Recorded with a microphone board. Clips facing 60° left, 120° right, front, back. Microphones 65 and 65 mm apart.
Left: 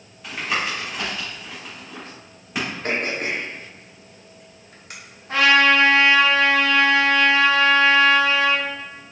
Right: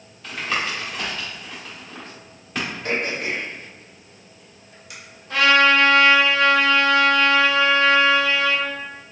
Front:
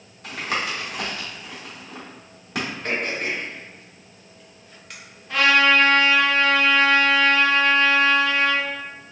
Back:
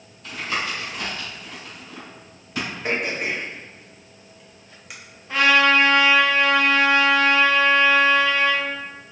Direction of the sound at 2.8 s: 95° left.